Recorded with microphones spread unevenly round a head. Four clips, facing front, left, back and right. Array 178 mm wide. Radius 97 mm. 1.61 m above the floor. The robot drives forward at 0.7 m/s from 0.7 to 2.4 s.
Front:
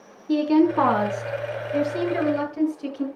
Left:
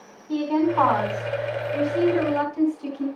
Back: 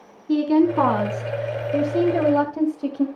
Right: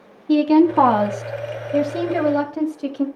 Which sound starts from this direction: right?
A woman speaking, at 0.3 s.